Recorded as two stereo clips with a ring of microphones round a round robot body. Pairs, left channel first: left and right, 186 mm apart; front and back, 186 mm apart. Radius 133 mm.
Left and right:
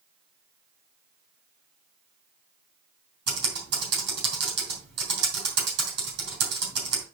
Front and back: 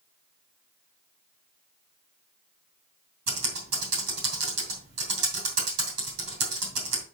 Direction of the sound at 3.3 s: 135° right.